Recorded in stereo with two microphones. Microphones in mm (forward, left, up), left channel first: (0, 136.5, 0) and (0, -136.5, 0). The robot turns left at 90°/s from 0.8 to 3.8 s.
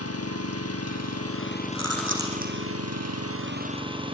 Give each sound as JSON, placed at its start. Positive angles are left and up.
{"t": 0.0, "sound": "an engine running", "azimuth_deg": 110, "distance_m": 2.5}
{"t": 1.8, "sound": "chewing", "side_deg": -75, "distance_m": 5.0}